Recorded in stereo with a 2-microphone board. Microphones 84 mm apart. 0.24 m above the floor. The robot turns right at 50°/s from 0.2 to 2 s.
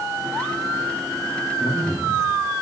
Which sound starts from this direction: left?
A man speaking, at 1.6 s.